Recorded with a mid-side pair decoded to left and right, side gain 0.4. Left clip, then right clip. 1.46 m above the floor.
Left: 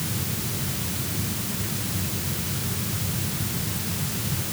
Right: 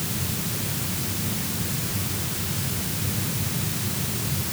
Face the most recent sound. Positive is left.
No sound to turn to.